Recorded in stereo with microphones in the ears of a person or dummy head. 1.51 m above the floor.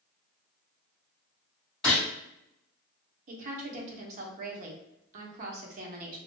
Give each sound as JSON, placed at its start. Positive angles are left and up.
{"t": 1.8, "sound": "a gunshot", "side_deg": 5, "distance_m": 2.0}
{"t": 3.3, "sound": "a woman speaking", "side_deg": -45, "distance_m": 0.9}